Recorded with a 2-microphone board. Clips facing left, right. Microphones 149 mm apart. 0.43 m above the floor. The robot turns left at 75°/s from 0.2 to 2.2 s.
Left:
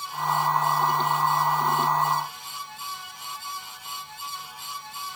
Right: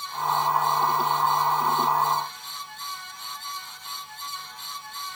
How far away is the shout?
I don't hear a shout.